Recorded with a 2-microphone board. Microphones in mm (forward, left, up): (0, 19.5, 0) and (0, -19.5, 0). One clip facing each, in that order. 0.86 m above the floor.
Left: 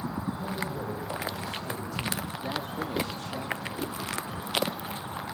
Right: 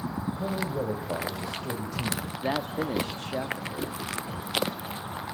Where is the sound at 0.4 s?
85° right, 3.5 m.